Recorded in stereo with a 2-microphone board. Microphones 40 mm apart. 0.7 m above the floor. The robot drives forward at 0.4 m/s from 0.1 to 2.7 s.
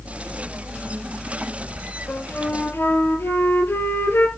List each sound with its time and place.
2.1 s a flute: 80° left, 4 m; by 4.3 s 75° left (ahead or behind), 4 m